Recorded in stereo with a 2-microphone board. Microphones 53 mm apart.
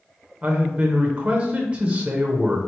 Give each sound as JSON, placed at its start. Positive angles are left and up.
{"t": 0.4, "sound": "a man speaking", "side_deg": -25, "distance_m": 0.8}